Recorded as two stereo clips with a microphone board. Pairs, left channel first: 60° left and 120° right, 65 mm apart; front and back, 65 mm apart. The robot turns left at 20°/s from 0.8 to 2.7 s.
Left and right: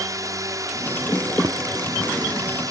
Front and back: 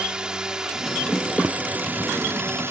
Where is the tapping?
110° right; by 1.6 s 115° right.